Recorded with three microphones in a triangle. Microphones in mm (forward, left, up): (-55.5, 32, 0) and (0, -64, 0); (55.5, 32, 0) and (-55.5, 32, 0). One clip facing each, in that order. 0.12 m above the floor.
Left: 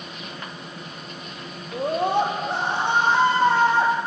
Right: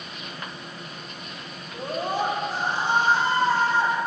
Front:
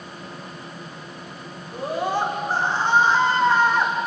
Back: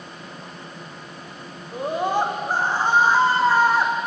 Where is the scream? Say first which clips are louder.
Left 6 dB, back 2 dB; 110° left, 5.5 m; by 3.9 s 95° left, 6.5 m.